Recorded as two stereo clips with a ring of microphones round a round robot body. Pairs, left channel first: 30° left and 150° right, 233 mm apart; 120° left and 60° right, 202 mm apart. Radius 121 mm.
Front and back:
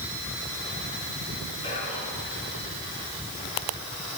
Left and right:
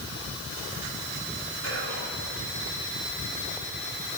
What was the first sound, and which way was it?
Whispering, 40° right.